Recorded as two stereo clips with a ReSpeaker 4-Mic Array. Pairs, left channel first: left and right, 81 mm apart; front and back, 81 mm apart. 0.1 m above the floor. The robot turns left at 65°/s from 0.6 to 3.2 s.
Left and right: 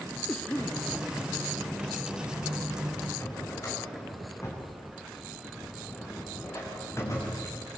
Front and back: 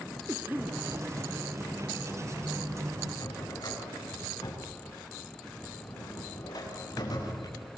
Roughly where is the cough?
Behind left.